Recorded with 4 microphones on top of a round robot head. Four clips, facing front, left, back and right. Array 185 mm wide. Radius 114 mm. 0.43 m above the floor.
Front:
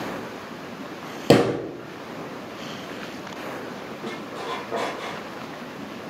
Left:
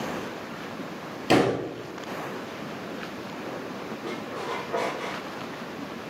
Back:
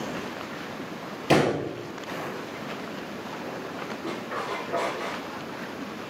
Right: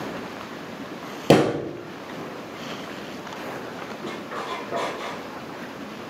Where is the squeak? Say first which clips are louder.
Right 2 dB, even; 45° right, 1.9 m.